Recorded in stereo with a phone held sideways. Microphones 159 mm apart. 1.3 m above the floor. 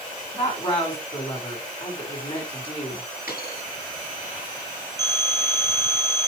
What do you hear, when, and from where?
0.3 s a woman speaking: 40° left (ahead or behind), 4.5 m
3.3 s a dropped coin: 70° left (ahead or behind), 5.5 m
5.0 s a phone ringing: 75° left (ahead or behind), 3 m